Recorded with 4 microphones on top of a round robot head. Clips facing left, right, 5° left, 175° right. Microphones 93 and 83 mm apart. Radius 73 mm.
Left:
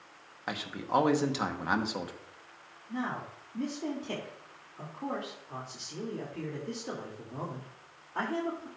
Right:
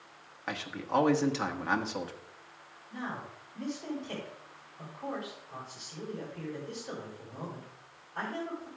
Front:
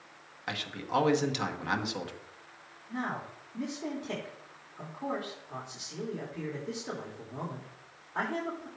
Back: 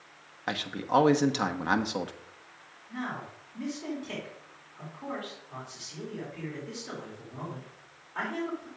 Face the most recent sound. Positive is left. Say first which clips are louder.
# left 4 dB, front 1 dB
turn(degrees=70)